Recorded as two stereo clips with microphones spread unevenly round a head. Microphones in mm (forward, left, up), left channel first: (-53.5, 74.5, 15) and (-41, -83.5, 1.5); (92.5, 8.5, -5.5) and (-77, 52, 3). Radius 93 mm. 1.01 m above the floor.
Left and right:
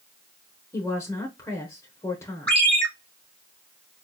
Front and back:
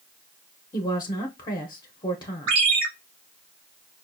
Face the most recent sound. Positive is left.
turn(degrees=180)